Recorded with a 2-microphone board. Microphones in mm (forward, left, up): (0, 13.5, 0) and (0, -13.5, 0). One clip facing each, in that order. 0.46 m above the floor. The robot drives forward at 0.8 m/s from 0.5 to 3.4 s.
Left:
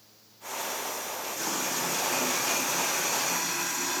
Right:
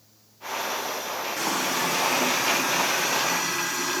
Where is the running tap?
65° right (ahead or behind), 2.5 m; by 4.0 s 40° right (ahead or behind), 3.5 m.